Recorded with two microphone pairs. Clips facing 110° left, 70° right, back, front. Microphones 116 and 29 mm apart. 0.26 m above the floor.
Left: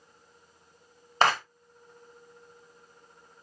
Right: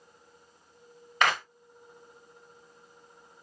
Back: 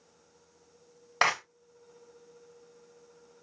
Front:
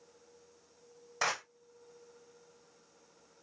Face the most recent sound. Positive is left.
turn(degrees=160)